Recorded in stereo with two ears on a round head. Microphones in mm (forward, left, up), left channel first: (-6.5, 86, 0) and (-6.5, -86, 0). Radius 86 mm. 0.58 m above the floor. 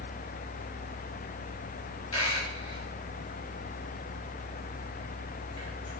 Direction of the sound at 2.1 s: 20° left (ahead or behind).